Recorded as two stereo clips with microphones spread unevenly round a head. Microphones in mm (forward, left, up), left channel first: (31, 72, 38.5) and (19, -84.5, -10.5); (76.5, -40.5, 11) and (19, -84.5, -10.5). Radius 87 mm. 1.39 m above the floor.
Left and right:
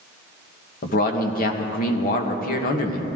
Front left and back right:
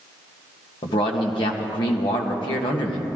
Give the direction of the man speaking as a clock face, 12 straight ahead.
10 o'clock.